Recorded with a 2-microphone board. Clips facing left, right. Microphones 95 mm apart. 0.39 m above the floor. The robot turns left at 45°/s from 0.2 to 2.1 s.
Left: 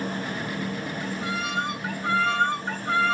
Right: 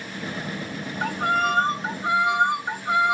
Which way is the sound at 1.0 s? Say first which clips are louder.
Right 11 dB; 115° right.